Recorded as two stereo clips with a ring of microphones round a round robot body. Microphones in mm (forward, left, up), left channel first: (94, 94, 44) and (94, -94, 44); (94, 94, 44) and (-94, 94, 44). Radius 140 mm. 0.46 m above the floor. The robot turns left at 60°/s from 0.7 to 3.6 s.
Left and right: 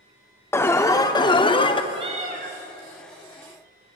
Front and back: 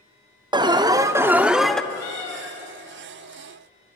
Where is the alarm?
150° left, 0.7 m; by 1.8 s 85° left, 0.7 m.